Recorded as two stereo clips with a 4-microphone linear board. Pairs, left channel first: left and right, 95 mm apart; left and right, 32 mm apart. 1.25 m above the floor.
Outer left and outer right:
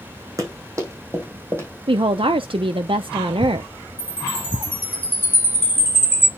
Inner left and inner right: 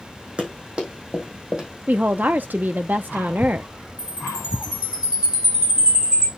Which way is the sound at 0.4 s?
35° right (ahead or behind).